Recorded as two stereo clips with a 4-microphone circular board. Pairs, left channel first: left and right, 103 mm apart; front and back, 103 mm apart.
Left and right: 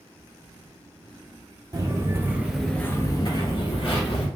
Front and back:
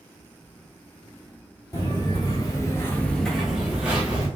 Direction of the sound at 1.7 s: 45° right.